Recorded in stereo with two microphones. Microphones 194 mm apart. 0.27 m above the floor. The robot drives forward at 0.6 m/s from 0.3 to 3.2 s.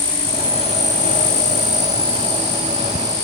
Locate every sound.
0.0 s an insect: 25° left (ahead or behind); by 3.2 s 15° left (ahead or behind)